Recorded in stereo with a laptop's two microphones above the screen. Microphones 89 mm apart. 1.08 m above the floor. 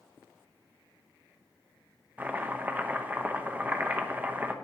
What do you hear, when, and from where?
2.2 s chopping: 20° right (ahead or behind), 0.9 m